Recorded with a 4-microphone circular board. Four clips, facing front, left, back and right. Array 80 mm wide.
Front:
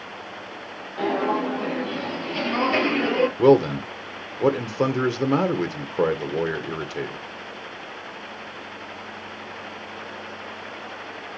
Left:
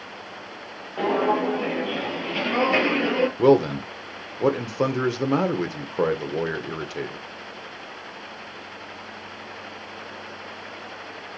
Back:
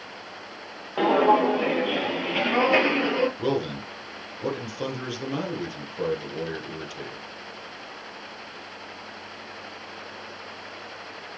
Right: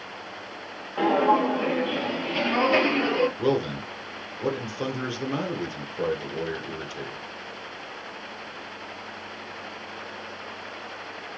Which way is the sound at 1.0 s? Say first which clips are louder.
Right 1 dB, back 5 dB; 175° right.